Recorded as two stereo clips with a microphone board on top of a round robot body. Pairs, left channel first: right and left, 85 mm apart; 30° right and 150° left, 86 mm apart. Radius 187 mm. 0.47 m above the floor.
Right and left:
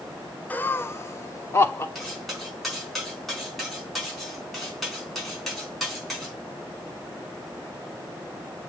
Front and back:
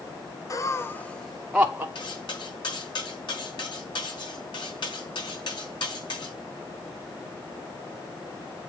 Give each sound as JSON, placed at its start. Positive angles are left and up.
{"t": 0.5, "sound": "laughter", "azimuth_deg": -30, "distance_m": 1.0}
{"t": 1.9, "sound": "cutlery clinking", "azimuth_deg": 0, "distance_m": 4.0}